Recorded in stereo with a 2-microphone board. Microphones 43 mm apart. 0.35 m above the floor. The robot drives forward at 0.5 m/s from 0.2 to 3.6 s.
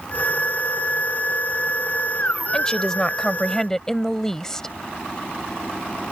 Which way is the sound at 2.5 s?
15° left (ahead or behind).